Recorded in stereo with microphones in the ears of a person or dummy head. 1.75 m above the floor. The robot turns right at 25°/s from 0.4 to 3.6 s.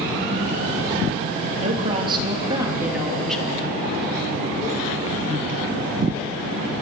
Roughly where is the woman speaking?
Ahead right.